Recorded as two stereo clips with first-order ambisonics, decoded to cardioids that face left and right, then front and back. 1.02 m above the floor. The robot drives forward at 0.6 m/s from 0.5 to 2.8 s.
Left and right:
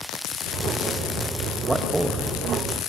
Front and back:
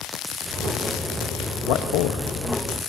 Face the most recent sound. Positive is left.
turn(degrees=-25)